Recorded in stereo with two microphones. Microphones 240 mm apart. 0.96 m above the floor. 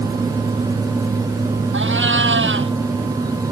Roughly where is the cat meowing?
Right.